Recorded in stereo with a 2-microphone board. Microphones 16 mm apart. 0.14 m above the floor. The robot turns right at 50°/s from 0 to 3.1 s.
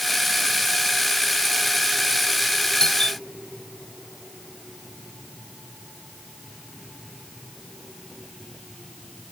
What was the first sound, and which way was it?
A doorbell, 45° left (ahead or behind).